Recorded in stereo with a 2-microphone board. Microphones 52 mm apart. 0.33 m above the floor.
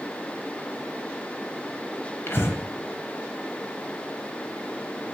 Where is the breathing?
50° left (ahead or behind), 1.0 m.